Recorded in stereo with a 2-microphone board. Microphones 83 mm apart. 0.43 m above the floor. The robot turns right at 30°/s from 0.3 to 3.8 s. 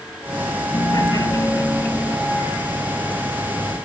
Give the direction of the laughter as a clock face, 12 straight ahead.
8 o'clock.